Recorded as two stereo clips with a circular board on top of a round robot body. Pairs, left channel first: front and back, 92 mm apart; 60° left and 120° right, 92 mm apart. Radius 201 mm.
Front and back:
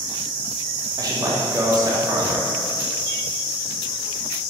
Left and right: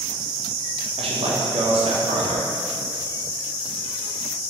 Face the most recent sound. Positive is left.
turn(degrees=-130)